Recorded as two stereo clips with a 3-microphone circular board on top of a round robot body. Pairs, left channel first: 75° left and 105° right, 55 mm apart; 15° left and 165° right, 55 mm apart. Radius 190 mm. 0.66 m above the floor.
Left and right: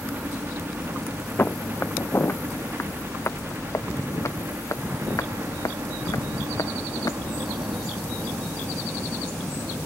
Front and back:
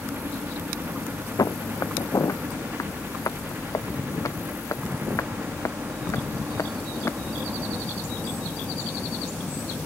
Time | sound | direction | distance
0.0 | a helicopter | 140° right | ?
1.4 | footsteps | 20° left | ?